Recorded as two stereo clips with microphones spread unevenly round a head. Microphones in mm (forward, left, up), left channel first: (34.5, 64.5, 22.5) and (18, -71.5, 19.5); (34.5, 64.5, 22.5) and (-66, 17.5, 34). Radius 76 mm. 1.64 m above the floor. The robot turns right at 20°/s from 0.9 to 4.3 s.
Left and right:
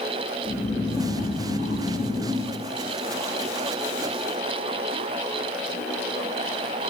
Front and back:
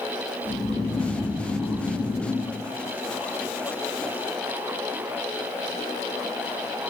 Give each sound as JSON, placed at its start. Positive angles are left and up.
{"t": 0.5, "sound": "snoring", "azimuth_deg": 120, "distance_m": 1.7}